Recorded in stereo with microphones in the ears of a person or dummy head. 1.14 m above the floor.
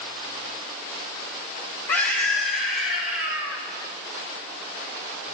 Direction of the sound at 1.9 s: 10° left (ahead or behind).